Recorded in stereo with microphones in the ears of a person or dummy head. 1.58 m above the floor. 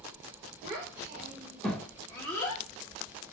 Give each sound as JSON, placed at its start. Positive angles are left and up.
{"t": 0.6, "sound": "a child speaking", "side_deg": -30, "distance_m": 1.0}